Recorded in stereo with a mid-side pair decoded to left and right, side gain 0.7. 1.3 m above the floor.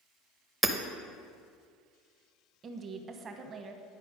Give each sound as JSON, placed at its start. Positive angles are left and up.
{"t": 0.6, "sound": "hammering", "azimuth_deg": -10, "distance_m": 0.8}
{"t": 2.6, "sound": "a woman speaking", "azimuth_deg": -35, "distance_m": 1.0}